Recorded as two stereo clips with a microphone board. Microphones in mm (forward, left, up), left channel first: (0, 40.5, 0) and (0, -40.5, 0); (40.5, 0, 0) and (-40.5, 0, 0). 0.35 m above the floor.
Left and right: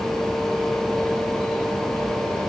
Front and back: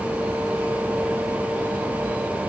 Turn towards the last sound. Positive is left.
No sound to turn to.